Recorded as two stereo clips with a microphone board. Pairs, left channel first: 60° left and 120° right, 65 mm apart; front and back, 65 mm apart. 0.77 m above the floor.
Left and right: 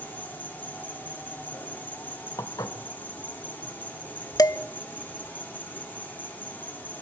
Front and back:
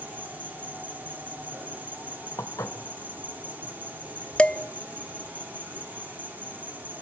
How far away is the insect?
About 2.5 m.